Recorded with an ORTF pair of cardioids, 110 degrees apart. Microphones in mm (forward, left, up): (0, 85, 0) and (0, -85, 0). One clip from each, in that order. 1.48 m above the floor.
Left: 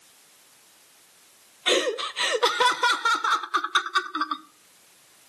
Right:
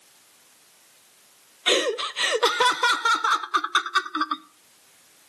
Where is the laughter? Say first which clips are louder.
Right 1 dB; 10° right, 0.8 m.